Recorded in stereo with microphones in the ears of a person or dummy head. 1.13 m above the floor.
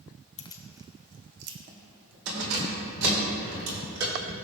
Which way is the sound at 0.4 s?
30° left (ahead or behind).